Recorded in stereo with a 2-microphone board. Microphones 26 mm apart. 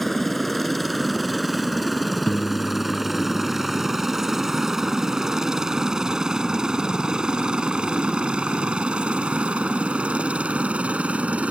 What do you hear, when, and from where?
0.0 s a helicopter: 5° left (ahead or behind); by 11.5 s 55° right (ahead or behind)
2.3 s a piano: 50° left (ahead or behind)